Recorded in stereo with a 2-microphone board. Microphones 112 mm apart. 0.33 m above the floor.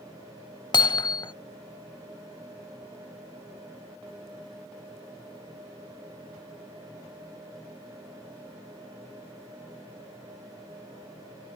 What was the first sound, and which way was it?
Hammering, 45° left (ahead or behind).